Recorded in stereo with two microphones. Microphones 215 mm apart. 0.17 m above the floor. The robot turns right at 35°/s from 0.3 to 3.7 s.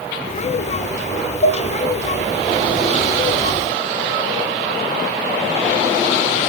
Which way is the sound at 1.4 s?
55° left (ahead or behind).